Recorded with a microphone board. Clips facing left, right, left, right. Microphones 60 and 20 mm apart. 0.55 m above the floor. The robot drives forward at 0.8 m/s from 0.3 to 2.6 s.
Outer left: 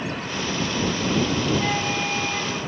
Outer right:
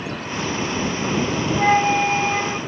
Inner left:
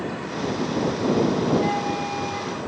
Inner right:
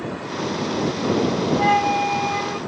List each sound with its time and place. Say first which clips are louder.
1.6 s a flute: outer right 8 dB, inner right 6 dB; 45° right (ahead or behind); by 2.6 s 30° right (ahead or behind)